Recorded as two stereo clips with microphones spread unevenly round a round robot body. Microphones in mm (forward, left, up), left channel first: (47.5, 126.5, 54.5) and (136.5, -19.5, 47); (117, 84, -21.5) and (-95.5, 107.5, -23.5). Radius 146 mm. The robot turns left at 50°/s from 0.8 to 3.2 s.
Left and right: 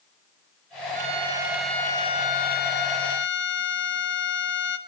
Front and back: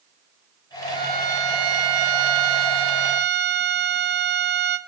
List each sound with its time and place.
0.9 s a violin: 115° right, 0.9 m; by 4.8 s 135° left, 0.9 m